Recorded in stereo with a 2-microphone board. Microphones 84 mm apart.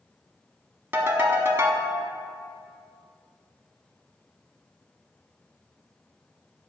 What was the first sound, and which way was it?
A ringtone, 30° right (ahead or behind).